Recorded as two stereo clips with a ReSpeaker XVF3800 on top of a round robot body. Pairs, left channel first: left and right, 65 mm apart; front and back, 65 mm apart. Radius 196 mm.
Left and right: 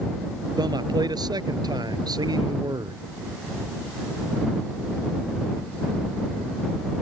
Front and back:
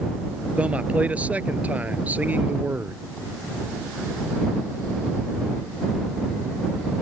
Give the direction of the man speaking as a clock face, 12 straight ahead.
4 o'clock.